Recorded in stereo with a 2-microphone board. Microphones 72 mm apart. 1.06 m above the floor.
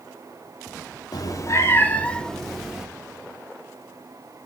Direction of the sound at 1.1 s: 60° left (ahead or behind).